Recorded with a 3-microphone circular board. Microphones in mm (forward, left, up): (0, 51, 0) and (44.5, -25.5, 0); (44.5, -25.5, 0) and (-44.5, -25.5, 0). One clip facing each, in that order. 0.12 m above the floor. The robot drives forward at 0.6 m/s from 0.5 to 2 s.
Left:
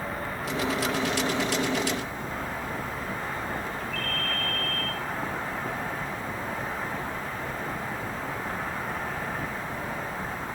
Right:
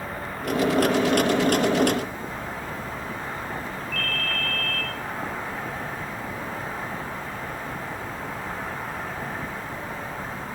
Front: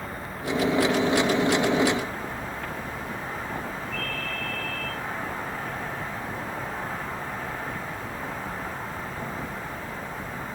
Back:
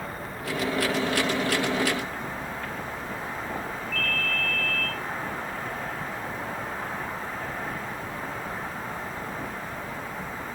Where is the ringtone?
175° right, 3.5 m.